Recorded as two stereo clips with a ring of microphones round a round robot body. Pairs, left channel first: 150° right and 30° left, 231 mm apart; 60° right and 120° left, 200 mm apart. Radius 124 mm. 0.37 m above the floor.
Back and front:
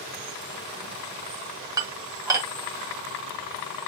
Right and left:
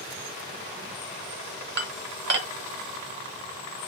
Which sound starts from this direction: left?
Dishes clattering, at 1.8 s.